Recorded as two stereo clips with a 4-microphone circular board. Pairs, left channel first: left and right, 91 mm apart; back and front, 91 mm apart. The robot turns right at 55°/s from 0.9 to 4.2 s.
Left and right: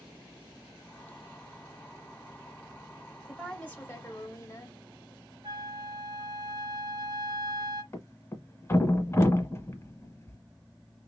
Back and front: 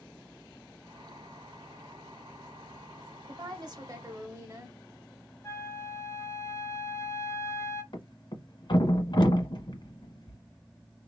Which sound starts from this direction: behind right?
A flute, at 5.4 s.